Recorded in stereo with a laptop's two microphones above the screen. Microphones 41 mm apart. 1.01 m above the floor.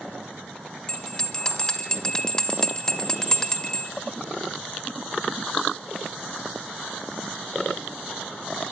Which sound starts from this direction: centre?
A bell, at 0.9 s.